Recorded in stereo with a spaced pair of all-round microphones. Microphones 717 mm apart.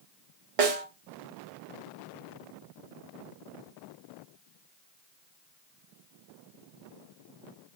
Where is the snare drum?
55° right (ahead or behind), 0.6 m.